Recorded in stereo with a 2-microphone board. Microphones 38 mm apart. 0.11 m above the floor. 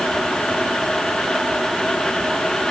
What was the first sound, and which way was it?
Only background noise.